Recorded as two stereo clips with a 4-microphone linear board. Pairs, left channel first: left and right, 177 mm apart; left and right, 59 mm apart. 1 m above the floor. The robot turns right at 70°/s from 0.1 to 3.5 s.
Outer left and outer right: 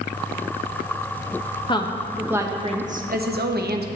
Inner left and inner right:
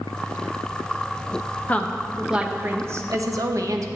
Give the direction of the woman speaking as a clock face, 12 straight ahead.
7 o'clock.